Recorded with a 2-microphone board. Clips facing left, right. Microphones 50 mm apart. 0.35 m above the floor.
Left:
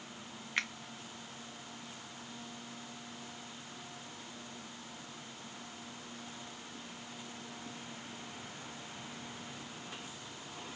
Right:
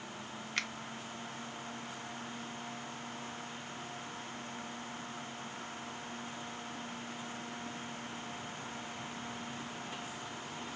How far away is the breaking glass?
I don't hear breaking glass.